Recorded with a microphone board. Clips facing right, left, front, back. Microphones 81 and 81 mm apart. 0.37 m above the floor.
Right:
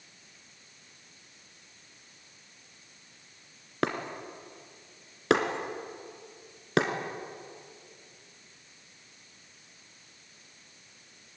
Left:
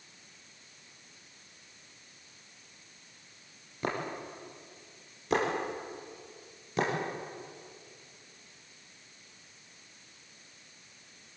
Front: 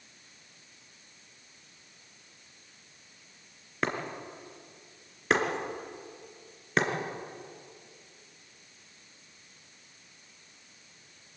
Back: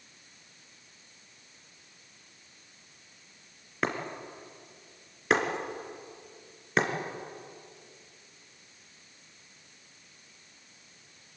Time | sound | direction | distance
3.8 | breaking glass | 90° right | 3 m